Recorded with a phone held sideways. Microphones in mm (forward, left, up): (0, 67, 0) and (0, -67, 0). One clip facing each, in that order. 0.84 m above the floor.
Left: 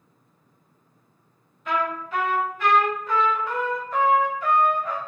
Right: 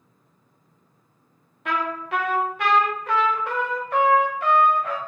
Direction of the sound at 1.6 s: 70° right (ahead or behind).